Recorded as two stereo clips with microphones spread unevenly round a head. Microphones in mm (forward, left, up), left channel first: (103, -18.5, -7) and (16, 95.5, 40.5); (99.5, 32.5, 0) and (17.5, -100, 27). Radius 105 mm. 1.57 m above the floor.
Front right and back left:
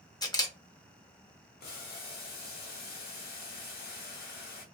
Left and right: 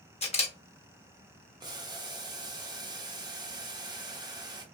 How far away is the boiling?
About 0.9 m.